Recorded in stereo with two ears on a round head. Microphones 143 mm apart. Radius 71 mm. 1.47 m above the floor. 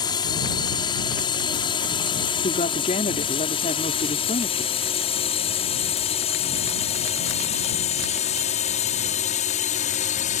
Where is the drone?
25° left (ahead or behind); by 10.4 s 50° left (ahead or behind).